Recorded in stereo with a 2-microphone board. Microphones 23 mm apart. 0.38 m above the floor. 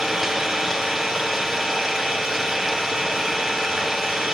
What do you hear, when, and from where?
0.0 s an engine running: 5° right (ahead or behind), 5 m